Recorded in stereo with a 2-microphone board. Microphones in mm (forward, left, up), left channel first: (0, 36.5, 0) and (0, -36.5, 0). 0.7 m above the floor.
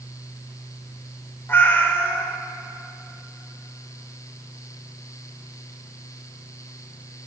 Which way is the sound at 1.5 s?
30° left (ahead or behind).